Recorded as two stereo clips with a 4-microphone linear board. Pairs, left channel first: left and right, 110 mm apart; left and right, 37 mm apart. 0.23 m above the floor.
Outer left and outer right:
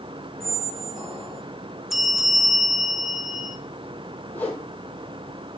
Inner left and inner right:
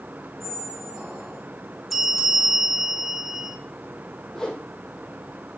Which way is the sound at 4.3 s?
15° left (ahead or behind).